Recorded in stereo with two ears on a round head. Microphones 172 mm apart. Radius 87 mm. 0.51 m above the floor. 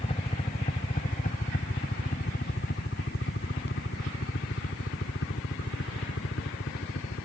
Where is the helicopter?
30° left (ahead or behind); by 7.3 s 65° left (ahead or behind).